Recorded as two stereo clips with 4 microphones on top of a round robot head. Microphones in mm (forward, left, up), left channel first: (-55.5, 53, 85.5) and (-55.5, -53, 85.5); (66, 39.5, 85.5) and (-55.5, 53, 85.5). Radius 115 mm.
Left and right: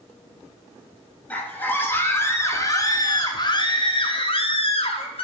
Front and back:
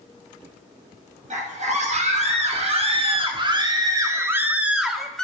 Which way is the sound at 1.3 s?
165° left.